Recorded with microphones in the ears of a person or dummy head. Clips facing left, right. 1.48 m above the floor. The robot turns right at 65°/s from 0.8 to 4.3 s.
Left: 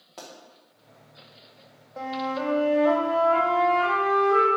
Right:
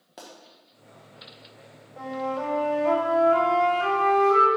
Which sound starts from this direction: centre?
A pop, at 0.2 s.